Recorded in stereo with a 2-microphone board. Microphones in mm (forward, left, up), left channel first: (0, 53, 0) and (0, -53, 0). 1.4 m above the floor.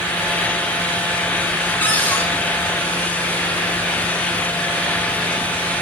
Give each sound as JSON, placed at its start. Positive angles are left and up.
{"t": 1.8, "sound": "a cupboard door", "side_deg": 15, "distance_m": 1.9}